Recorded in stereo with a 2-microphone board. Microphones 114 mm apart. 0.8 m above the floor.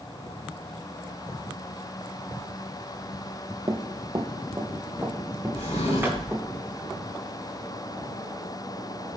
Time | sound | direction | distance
3.7 | running footsteps | 40° right (ahead or behind) | 0.9 m
5.5 | a drawer | 90° left | 4 m